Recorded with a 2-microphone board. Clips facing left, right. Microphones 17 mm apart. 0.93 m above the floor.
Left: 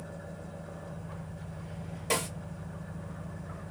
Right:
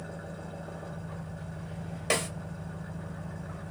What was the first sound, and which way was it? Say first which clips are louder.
An engine running: right 2 dB; 80° right.